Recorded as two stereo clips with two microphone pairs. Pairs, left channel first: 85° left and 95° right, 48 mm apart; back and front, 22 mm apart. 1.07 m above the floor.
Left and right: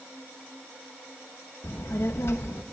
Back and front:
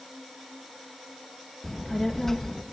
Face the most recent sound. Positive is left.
turn(degrees=110)